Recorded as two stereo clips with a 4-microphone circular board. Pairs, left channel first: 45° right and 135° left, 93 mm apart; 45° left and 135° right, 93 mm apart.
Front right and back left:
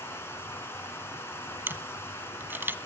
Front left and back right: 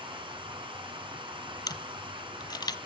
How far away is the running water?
About 3.5 m.